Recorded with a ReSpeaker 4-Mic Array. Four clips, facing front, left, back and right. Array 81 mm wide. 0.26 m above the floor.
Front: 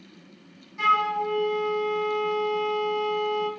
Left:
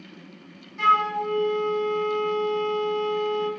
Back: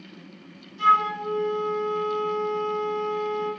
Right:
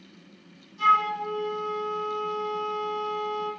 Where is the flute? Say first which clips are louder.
Left 1 dB, back 2 dB; 45° left, 3 m.